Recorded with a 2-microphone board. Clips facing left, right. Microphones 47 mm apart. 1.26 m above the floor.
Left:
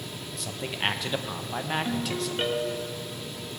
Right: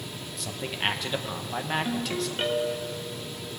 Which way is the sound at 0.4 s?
Centre (ahead or behind).